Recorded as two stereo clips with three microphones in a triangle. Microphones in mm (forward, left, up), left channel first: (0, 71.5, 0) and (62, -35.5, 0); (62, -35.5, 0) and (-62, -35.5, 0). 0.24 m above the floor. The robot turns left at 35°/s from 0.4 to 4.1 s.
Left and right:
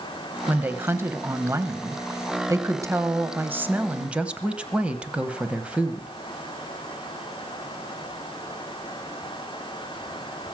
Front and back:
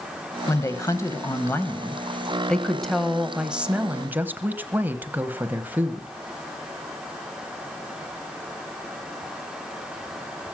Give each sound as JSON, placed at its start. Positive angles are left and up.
{"t": 0.5, "sound": "a woman speaking", "azimuth_deg": 0, "distance_m": 1.1}